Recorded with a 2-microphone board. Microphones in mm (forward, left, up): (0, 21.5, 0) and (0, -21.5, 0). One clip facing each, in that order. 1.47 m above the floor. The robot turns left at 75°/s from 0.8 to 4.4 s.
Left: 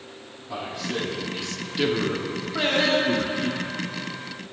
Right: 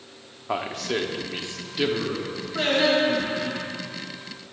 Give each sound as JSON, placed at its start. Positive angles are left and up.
{"t": 0.5, "sound": "a man speaking", "side_deg": -70, "distance_m": 0.8}
{"t": 2.5, "sound": "singing", "azimuth_deg": 15, "distance_m": 1.2}